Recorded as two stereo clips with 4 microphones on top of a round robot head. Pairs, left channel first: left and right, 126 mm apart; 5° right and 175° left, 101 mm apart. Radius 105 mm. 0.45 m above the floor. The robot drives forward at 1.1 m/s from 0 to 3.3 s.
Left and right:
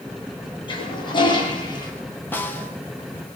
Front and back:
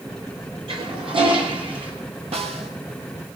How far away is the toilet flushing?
About 9.5 m.